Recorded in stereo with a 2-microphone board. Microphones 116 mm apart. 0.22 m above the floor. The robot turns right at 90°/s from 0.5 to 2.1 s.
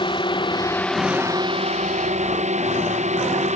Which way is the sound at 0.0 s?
135° left.